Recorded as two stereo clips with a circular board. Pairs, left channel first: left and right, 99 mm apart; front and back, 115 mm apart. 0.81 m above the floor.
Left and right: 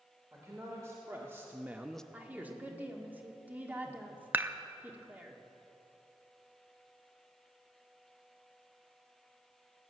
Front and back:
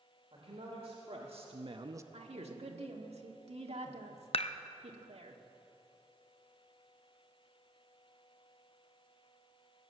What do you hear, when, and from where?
0.3 s a man speaking: 150° right, 2.5 m; by 2.0 s 160° left, 0.5 m
2.1 s a woman speaking: 160° right, 1.7 m
4.3 s dishes clattering: 20° right, 0.6 m